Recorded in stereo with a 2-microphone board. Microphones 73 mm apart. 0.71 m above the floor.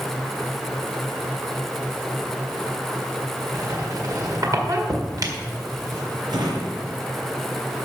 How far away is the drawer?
About 2.5 m.